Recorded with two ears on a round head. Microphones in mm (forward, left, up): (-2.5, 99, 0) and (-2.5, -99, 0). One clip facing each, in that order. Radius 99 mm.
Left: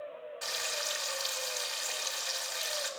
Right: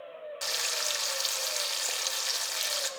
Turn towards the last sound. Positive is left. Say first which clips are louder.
# right 1 dB
turn(degrees=-60)  # may be behind; listen again after turning